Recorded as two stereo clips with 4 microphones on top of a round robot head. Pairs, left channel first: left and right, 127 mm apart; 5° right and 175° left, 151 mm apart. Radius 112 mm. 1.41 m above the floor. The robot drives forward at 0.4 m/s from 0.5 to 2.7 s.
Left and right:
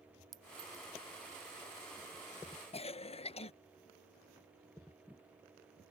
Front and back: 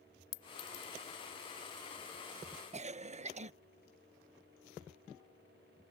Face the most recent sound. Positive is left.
turn(degrees=130)